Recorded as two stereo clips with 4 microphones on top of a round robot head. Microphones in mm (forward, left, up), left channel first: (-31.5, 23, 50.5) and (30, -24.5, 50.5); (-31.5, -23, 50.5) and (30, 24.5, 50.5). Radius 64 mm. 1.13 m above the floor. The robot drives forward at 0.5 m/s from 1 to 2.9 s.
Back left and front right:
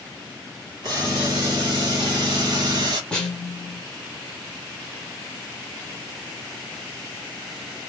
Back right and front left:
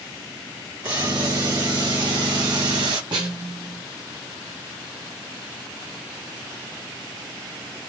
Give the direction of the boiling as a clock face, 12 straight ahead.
12 o'clock.